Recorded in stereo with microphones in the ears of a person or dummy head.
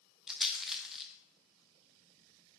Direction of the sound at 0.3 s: Centre (ahead or behind).